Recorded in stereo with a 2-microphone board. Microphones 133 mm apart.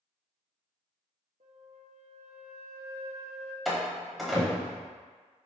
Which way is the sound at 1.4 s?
85° right.